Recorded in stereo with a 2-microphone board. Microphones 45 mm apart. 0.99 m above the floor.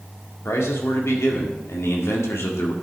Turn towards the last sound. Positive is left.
turn(degrees=70)  # may be behind; listen again after turning